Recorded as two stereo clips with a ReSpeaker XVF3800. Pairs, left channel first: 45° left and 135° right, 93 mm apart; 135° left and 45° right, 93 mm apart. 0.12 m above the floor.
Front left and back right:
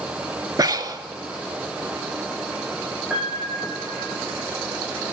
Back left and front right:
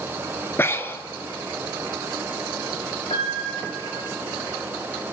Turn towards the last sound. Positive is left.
turn(degrees=145)